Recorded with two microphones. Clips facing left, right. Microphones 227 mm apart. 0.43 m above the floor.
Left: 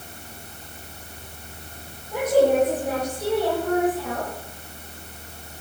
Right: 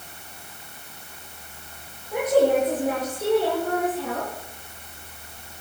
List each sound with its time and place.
2.1 s a woman speaking: 10° right (ahead or behind), 8 m; by 4.3 s 30° right (ahead or behind), 8 m